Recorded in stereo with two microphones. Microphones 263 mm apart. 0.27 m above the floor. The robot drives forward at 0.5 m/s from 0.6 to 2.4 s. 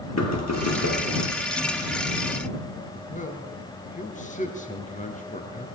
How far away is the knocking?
About 5 m.